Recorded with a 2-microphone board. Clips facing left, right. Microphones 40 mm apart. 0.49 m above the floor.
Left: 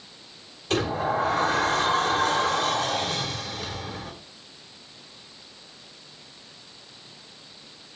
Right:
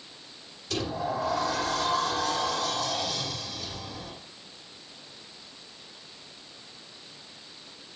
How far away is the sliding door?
About 2.5 m.